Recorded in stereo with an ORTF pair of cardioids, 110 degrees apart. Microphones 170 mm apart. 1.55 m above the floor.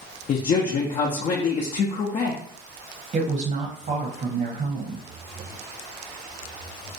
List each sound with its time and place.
0.3 s a man speaking: 45° left, 0.6 m
3.1 s a woman speaking: 50° right, 0.8 m